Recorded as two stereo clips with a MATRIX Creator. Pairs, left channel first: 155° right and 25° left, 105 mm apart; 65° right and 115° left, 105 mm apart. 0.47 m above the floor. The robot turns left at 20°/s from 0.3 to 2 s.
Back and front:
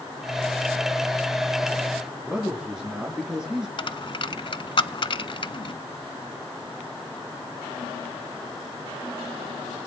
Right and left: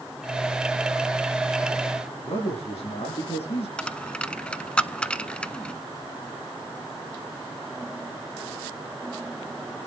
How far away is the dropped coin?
About 0.5 m.